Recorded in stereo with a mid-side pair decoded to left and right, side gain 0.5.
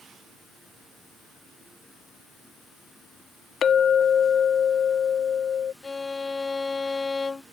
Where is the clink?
50° left.